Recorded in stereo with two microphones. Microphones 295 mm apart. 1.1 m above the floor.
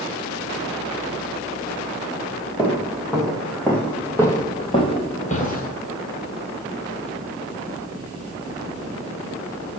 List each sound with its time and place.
2.6 s footsteps: 5° right (ahead or behind), 2.5 m; by 5.7 s 30° left (ahead or behind), 1.6 m